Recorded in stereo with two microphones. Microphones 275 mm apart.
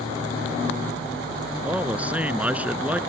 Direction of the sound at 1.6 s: 5° right (ahead or behind).